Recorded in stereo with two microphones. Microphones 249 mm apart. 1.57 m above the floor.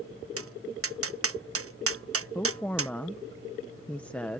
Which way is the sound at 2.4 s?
5° left (ahead or behind).